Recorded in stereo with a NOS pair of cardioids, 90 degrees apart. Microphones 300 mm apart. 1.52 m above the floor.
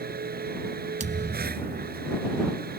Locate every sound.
0.0 s a machine running: 30° right
1.0 s a thud: 25° right